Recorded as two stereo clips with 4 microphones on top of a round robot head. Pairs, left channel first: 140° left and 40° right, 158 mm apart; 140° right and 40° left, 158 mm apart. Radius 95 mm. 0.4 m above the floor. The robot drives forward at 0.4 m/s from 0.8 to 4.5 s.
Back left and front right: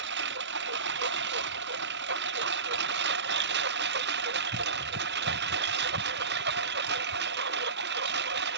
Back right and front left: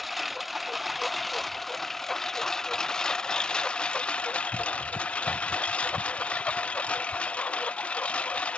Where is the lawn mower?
50° right; by 8.6 s 55° right.